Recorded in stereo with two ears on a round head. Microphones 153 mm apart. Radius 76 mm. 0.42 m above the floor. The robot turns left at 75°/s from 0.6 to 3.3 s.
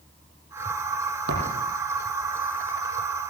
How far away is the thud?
About 7 m.